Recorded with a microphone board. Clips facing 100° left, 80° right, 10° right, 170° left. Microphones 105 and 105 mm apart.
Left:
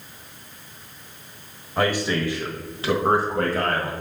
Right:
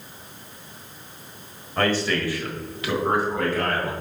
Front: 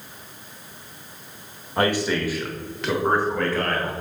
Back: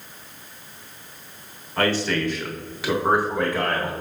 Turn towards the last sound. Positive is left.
turn(degrees=110)